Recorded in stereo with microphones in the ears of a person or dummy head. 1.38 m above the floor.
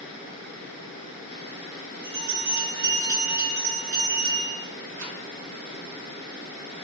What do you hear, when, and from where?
2.0 s a bell: 60° right (ahead or behind), 1.3 m
5.0 s a rattle: 80° right, 1.0 m